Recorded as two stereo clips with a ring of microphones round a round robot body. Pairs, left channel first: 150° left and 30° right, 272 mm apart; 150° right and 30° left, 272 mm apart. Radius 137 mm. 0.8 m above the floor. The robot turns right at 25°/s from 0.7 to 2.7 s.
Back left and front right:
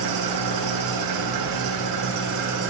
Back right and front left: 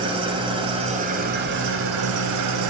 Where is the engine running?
40° right, 1.6 m; by 2.7 s 10° left, 1.6 m.